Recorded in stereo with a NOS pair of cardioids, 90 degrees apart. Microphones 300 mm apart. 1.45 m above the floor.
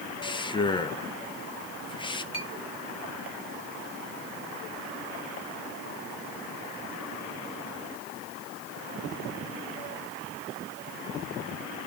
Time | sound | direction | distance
0.2 | a man speaking | 15° left | 1.1 m
2.3 | a clink | 20° left | 1.6 m